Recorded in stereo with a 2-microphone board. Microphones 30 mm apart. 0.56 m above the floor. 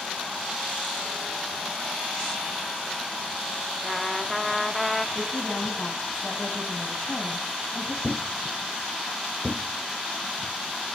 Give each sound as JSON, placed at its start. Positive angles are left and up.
{"t": 3.8, "sound": "a trumpet", "side_deg": 5, "distance_m": 1.0}
{"t": 5.2, "sound": "a woman speaking", "side_deg": 40, "distance_m": 4.0}
{"t": 8.0, "sound": "a thud", "side_deg": 30, "distance_m": 1.4}